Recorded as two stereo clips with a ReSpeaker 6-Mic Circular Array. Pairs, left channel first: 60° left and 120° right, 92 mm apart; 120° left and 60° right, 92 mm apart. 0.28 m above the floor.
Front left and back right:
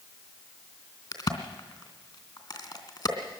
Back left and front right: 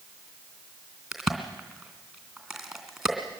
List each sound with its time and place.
1.1 s a crack: 25° left, 2.5 m